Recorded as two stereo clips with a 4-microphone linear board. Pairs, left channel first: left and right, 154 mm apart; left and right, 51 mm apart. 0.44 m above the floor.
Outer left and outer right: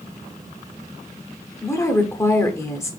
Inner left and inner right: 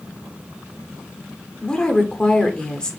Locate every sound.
1.6 s a woman speaking: 20° left (ahead or behind), 0.8 m